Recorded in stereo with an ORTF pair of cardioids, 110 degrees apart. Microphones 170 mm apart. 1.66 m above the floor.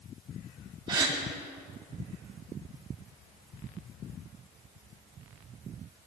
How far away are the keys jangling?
I don't hear keys jangling.